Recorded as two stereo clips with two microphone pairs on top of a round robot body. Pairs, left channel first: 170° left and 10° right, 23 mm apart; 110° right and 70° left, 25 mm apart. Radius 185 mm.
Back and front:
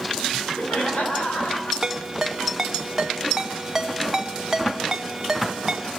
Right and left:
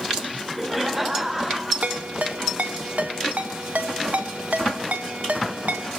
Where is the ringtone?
60° left, 2 m.